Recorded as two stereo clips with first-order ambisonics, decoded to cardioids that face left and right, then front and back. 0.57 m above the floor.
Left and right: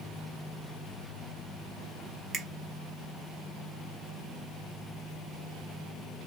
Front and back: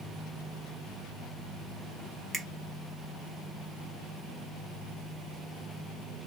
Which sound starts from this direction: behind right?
A finger snap, at 2.3 s.